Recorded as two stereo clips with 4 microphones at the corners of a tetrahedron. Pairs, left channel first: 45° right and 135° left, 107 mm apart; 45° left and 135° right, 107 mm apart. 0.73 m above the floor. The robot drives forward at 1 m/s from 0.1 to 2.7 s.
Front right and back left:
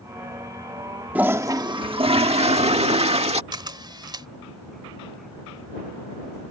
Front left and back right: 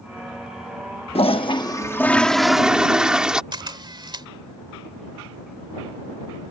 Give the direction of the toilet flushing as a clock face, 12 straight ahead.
10 o'clock.